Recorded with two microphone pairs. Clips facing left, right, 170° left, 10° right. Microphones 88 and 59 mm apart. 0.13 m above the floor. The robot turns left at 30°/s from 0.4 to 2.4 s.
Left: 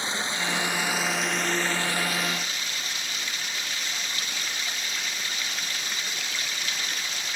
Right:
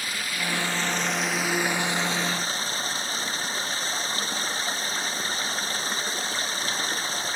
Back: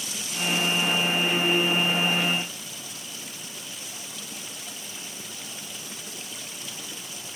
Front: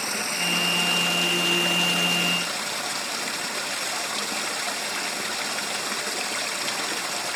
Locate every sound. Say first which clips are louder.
0.0 s running water: left 2 dB, front 4 dB; 25° left; by 7.4 s 35° right